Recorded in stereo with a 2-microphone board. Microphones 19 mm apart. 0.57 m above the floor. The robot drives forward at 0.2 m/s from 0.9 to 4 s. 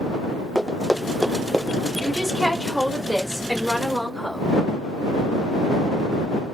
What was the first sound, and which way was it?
Running footsteps, 20° left (ahead or behind).